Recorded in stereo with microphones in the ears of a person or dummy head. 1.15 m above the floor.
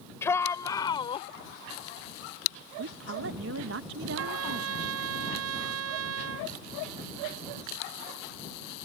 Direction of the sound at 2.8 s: 65° right (ahead or behind).